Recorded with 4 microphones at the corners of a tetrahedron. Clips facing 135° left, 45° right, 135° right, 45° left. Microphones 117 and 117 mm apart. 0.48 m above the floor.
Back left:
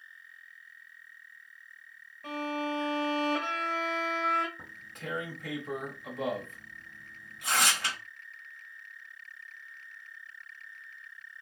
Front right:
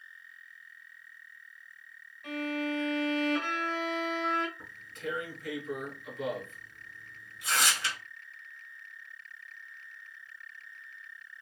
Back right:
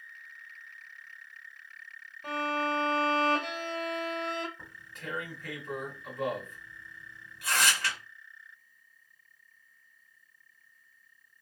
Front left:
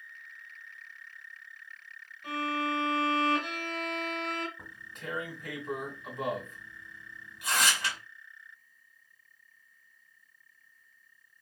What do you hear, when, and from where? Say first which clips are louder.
2.2 s a violin: even, back right 1 dB; 175° right, 1.4 m
4.6 s tearing paper: front right 4 dB, front left 1 dB; 115° left, 1.4 m